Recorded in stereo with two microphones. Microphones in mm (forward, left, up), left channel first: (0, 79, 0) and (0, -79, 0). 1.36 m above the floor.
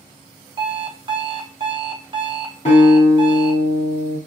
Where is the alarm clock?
30° right (ahead or behind), 0.5 m.